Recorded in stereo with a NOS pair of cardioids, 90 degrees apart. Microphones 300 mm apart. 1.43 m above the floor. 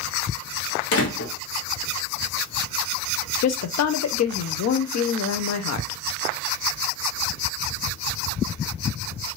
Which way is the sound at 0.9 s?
50° left.